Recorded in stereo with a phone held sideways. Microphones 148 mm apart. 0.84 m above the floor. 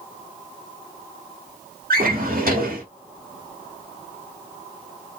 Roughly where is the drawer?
Right.